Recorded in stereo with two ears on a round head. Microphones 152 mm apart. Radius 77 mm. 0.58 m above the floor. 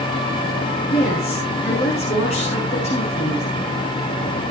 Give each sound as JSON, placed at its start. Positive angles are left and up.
{"t": 0.9, "sound": "a woman speaking", "side_deg": 40, "distance_m": 7.0}